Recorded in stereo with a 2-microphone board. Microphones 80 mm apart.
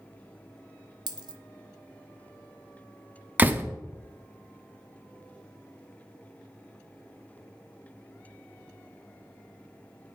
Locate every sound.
1.1 s a dropped coin: 65° right (ahead or behind), 0.7 m
3.4 s a door slam: 25° right (ahead or behind), 0.6 m